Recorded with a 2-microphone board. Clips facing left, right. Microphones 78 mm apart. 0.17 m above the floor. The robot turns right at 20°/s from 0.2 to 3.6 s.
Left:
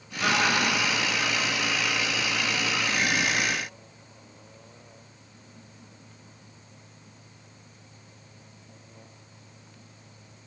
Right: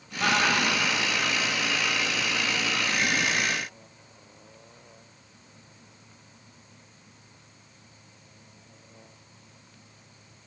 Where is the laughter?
10° right (ahead or behind), 3 m; by 1.0 s 25° right (ahead or behind), 3 m.